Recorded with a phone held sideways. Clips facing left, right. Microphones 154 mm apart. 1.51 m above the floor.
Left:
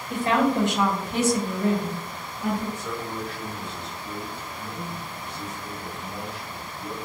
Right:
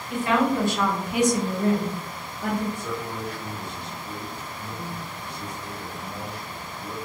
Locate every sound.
0.1 s a woman speaking: 40° left (ahead or behind), 1.0 m; by 2.6 s 70° right (ahead or behind), 1.2 m
2.8 s a man speaking: 10° right (ahead or behind), 1.6 m